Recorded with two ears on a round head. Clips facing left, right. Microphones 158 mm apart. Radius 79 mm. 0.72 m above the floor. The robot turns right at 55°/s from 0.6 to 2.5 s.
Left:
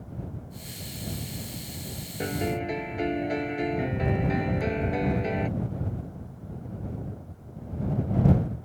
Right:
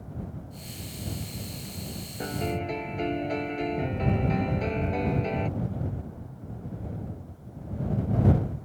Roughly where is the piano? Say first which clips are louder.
Left 2 dB; left.